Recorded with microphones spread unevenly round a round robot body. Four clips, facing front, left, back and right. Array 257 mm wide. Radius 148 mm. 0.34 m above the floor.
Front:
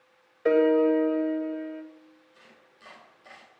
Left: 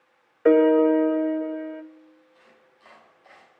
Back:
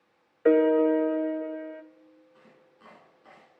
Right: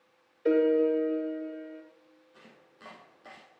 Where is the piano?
95° left, 0.9 m.